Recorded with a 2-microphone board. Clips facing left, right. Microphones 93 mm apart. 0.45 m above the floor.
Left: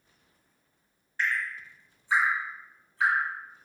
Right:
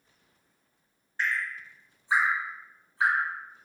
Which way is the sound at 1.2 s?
20° right (ahead or behind).